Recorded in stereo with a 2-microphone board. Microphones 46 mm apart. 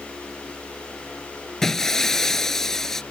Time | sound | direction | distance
1.6 | breaking glass | 10° left (ahead or behind) | ?